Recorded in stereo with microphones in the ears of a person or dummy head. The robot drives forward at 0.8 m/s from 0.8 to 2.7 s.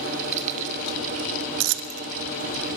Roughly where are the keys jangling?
Right.